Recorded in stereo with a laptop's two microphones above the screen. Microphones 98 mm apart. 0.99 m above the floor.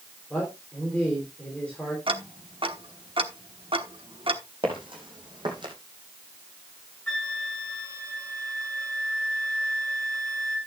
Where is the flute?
10° left (ahead or behind), 3 m.